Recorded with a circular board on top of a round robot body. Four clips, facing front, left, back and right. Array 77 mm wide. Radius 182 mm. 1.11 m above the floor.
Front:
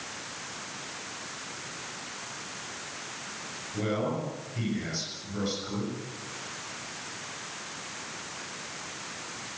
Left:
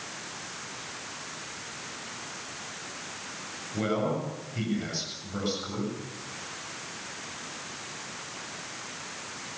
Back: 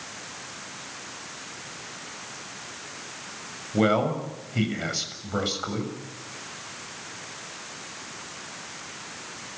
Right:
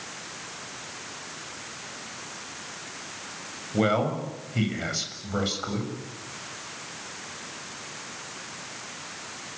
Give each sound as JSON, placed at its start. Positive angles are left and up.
{"t": 3.7, "sound": "a man speaking", "azimuth_deg": -150, "distance_m": 7.0}